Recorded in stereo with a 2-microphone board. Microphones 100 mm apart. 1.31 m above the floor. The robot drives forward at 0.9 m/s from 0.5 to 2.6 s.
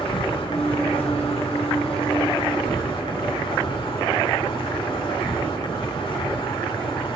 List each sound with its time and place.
0.0 s an insect: 65° left (ahead or behind), 2.5 m; by 7.2 s 60° left (ahead or behind), 2.5 m